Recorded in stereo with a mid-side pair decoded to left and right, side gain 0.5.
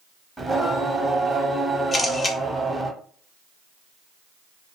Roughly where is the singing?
Ahead.